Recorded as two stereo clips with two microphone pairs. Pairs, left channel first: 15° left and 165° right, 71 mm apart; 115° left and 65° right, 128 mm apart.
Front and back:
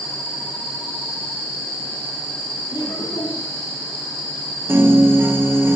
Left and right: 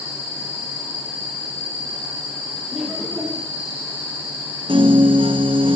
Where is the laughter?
20° left, 5 m.